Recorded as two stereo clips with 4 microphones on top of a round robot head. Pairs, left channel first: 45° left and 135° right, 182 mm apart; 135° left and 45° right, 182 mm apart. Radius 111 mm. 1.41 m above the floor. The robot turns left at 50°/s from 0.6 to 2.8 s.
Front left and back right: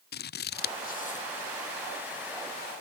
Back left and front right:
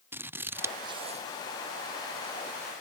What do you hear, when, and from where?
0.1 s scissors: 30° left; by 1.2 s 5° right